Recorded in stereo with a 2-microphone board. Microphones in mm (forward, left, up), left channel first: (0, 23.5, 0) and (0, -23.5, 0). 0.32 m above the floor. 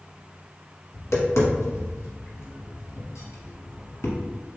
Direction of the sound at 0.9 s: 80° left.